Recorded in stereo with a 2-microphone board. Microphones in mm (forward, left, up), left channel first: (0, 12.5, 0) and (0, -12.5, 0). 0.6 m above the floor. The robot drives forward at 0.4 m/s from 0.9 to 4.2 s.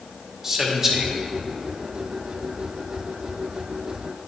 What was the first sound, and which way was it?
A man speaking, 20° right (ahead or behind).